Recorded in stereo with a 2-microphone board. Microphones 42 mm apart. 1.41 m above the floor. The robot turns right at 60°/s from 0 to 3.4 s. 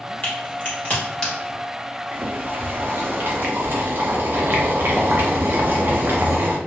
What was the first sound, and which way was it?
A crack, 45° left (ahead or behind).